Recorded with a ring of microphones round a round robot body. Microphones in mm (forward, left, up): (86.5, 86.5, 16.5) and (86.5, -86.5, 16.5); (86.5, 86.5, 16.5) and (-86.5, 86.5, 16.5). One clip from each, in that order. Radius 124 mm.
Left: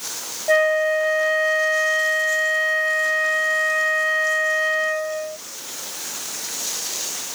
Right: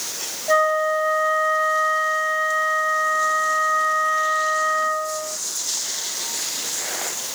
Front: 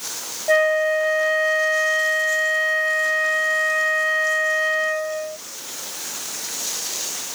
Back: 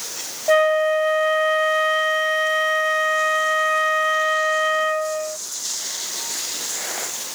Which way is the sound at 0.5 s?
135° left.